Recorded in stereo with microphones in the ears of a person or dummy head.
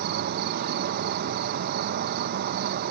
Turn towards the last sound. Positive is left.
turn(degrees=-55)  # may be behind; listen again after turning